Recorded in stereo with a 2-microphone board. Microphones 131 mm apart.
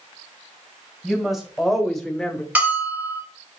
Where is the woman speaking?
5° right (ahead or behind), 2.5 m; by 2.5 s 10° left (ahead or behind), 1.1 m.